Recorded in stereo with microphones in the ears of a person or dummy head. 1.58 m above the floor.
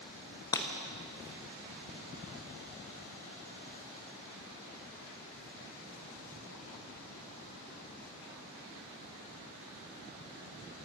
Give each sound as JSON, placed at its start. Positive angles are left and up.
{"t": 0.5, "sound": "breaking glass", "side_deg": 15, "distance_m": 1.1}